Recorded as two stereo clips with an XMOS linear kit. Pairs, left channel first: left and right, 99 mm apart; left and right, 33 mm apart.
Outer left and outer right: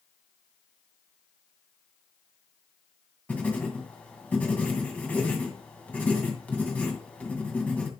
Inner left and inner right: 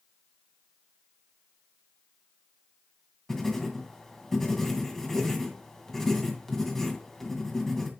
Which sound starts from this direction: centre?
Writing, at 3.3 s.